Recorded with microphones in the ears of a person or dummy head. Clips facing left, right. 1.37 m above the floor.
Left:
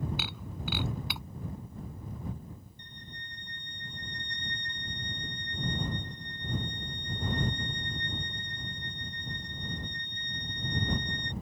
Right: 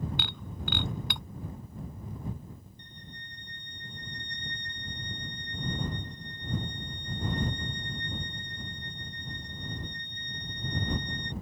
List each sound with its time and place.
0.2 s breaking glass: 5° left (ahead or behind)
2.8 s a violin: 60° left (ahead or behind)